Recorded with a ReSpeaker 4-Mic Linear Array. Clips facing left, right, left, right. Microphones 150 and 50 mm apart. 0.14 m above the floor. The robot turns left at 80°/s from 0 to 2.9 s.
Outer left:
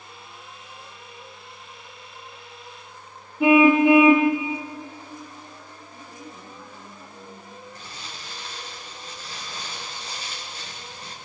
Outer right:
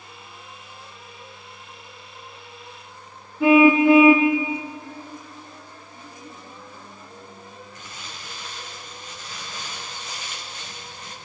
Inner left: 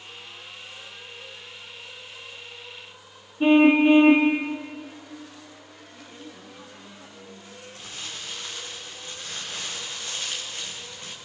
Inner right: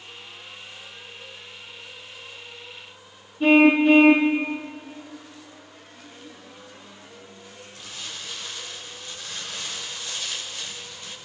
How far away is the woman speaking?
About 6.5 m.